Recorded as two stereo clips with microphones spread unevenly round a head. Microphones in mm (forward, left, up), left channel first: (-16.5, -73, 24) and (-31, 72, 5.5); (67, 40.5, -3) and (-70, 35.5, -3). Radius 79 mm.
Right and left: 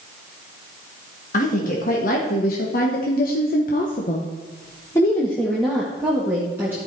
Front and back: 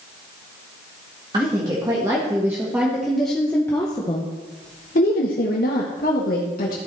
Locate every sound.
1.3 s a woman speaking: 115° right, 2.0 m; by 6.8 s 15° left, 1.8 m